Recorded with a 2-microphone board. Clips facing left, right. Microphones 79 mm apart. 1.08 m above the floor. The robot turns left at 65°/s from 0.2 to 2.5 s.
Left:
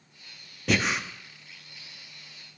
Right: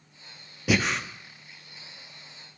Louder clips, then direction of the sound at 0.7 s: Right 1 dB; 5° right (ahead or behind).